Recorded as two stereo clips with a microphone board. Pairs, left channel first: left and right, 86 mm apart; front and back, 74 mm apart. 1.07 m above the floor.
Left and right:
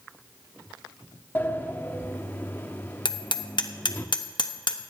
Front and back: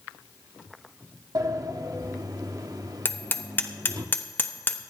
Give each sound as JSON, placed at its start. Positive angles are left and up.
{"t": 1.4, "sound": "a sliding door", "azimuth_deg": 155, "distance_m": 0.9}
{"t": 3.0, "sound": "hammering", "azimuth_deg": 60, "distance_m": 1.0}